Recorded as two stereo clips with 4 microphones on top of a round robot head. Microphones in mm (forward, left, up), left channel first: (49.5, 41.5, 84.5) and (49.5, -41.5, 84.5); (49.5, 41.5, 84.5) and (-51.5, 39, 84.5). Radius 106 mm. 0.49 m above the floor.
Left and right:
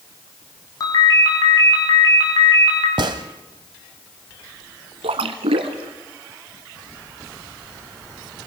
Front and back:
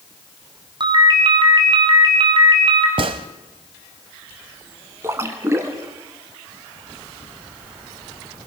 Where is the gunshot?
135° right, 0.7 m.